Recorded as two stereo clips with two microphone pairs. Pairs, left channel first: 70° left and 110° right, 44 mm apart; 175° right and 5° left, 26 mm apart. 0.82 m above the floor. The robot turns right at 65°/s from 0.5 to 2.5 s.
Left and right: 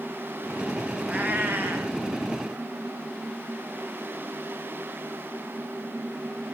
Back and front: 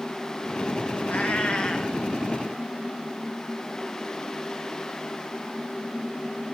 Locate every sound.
1.1 s a cat meowing: 165° right, 1.9 m; by 2.0 s 105° right, 1.9 m